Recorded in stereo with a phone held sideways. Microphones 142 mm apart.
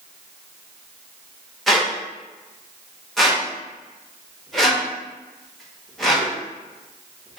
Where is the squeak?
Centre (ahead or behind), 0.9 m.